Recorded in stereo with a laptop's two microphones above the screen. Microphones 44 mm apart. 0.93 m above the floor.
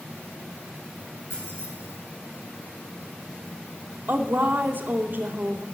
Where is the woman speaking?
50° right (ahead or behind), 1.9 m.